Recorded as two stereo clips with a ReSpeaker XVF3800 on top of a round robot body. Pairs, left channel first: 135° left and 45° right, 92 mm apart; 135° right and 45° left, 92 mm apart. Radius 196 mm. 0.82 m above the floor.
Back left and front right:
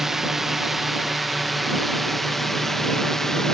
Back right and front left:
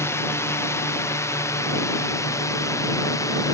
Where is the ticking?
No ticking in this recording.